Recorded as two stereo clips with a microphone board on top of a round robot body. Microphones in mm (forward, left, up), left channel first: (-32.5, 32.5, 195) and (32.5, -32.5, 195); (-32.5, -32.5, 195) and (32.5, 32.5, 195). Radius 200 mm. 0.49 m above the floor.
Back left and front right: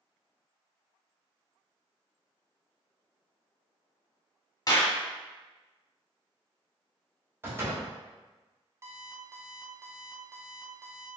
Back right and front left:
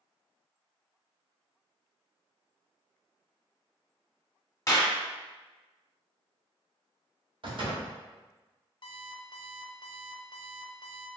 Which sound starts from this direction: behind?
A clap, at 4.7 s.